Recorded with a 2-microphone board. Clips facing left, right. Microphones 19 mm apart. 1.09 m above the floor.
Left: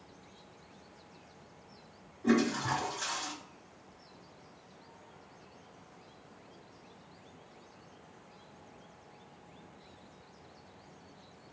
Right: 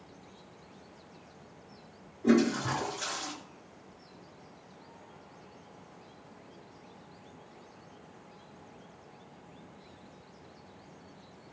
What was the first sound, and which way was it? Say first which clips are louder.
A toilet flushing: right 3 dB; 5° right (ahead or behind).